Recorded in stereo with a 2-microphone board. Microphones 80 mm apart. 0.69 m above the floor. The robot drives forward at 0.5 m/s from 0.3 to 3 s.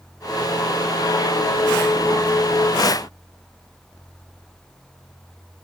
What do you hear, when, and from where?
Only background noise.